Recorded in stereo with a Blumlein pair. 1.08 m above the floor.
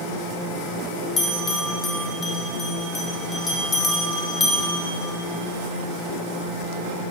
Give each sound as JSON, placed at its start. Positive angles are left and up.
{"t": 1.2, "sound": "a bell", "azimuth_deg": 20, "distance_m": 1.7}